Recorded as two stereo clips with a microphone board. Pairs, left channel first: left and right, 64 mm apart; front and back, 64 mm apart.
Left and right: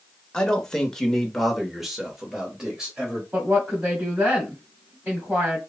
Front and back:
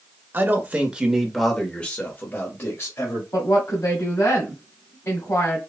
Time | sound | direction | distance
0.3 | a man speaking | 160° left | 1.0 m
3.3 | a woman speaking | 20° right | 2 m